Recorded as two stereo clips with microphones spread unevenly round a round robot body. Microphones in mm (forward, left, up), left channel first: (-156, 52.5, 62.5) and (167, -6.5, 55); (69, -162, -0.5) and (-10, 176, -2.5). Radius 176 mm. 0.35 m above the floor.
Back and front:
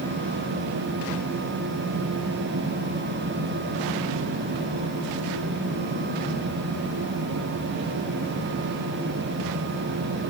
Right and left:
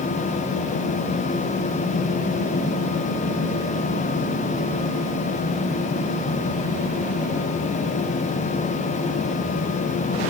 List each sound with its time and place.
Only background noise.